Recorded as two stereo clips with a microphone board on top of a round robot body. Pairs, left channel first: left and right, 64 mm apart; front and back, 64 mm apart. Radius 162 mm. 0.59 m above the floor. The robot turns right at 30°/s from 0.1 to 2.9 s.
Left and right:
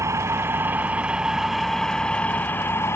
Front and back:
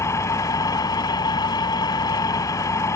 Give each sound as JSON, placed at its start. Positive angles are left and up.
{"t": 0.0, "sound": "an engine running", "azimuth_deg": -45}